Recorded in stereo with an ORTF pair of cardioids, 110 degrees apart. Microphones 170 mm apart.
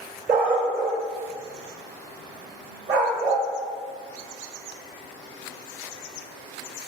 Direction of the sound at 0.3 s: 55° right.